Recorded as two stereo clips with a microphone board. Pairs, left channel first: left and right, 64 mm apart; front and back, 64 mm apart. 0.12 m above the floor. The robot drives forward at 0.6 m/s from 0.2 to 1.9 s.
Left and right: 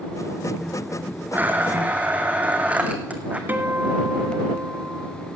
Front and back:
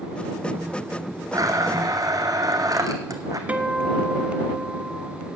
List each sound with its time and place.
1.3 s a blender: 150° right, 1.2 m; by 3.4 s 160° right, 1.5 m
3.5 s a guitar: 125° right, 0.9 m